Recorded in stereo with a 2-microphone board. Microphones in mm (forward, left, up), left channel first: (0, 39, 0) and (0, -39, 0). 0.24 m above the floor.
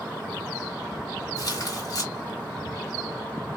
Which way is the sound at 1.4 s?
50° left (ahead or behind).